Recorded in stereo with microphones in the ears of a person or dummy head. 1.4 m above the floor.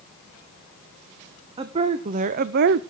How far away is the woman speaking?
About 1.1 m.